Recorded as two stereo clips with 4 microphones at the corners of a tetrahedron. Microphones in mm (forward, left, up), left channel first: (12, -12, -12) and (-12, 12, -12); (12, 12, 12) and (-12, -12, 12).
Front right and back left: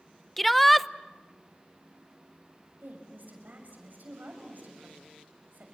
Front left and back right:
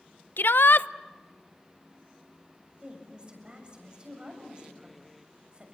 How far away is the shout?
About 0.6 m.